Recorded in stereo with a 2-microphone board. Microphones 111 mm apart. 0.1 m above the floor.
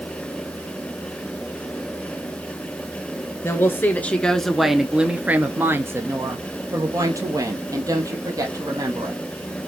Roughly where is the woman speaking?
Left.